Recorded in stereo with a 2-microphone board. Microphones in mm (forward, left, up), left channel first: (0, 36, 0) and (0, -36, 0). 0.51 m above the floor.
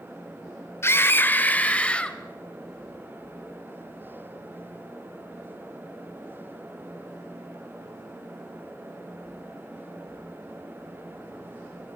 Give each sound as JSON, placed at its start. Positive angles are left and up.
{"t": 0.8, "sound": "a scream", "side_deg": 35, "distance_m": 1.3}